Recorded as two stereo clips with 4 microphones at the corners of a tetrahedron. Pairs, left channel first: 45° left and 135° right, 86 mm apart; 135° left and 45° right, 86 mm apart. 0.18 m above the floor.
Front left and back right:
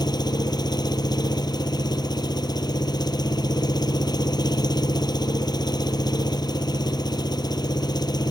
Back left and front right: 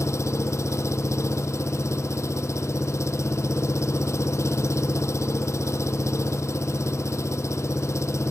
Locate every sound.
0.0 s an engine running: 80° left